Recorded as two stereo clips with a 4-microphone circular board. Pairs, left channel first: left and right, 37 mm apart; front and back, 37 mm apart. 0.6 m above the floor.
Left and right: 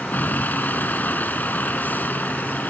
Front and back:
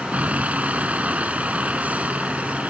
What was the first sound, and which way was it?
A vehicle, 130° left.